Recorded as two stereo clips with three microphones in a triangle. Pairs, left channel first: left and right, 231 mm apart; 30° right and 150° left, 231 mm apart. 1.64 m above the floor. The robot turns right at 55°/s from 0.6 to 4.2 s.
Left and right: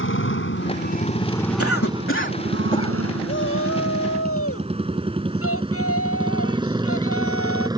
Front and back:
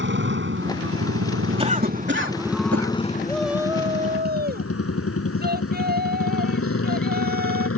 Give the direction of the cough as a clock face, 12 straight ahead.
9 o'clock.